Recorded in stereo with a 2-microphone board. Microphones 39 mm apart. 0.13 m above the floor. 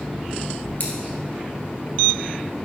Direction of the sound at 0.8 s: 55° left (ahead or behind).